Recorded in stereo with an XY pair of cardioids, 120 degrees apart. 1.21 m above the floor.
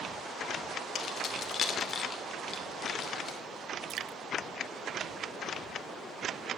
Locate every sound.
0.9 s keys jangling: 50° left, 2.5 m; by 3.4 s 40° left, 3.5 m
3.9 s dripping: 60° right, 1.1 m